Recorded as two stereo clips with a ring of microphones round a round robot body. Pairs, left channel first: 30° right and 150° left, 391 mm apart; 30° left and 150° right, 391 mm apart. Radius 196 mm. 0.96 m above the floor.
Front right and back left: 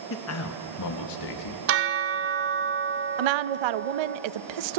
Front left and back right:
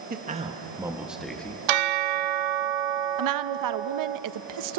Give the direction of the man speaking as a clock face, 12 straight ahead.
3 o'clock.